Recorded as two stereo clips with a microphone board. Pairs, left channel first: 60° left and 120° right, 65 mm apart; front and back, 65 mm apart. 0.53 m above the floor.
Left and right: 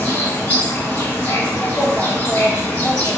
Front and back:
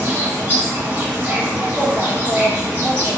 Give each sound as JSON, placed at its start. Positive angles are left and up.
{"t": 0.0, "sound": "an insect", "azimuth_deg": 115, "distance_m": 1.4}